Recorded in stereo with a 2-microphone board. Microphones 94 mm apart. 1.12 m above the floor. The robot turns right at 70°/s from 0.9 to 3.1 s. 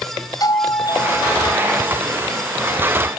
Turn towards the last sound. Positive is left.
turn(degrees=-65)